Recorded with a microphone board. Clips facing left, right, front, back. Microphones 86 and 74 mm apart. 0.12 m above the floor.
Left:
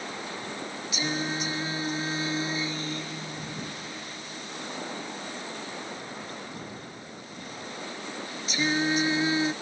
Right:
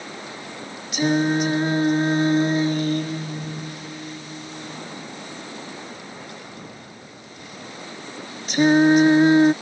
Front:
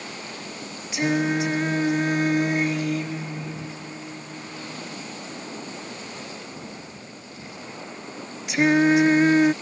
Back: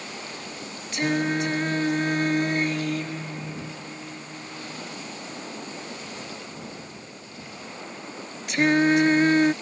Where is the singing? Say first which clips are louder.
Right 12 dB, front 2 dB; 85° right.